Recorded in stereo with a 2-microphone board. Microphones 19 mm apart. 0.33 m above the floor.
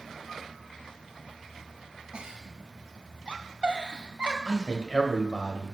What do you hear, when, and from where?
2.1 s a giggle: 55° right (ahead or behind), 0.7 m
4.5 s a man speaking: 35° left (ahead or behind), 1.3 m